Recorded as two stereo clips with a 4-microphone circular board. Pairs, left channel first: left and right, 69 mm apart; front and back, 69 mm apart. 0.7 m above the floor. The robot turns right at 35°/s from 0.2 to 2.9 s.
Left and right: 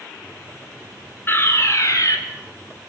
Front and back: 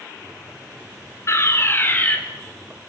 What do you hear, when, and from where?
1.3 s a fire alarm: 35° left, 4 m; by 2.2 s 70° left, 4 m